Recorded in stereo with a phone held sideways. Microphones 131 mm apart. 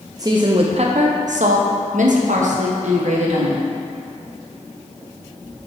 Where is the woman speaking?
30° right (ahead or behind), 0.7 m; by 3.7 s 60° right (ahead or behind), 1.8 m.